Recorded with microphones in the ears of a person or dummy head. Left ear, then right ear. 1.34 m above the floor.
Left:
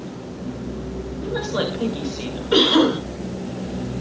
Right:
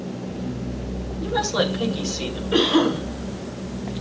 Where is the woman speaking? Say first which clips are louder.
Right 2 dB; 10° right (ahead or behind), 2.5 m.